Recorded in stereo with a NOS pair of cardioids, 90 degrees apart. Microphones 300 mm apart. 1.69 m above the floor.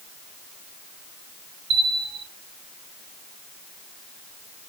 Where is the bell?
60° right, 1.2 m.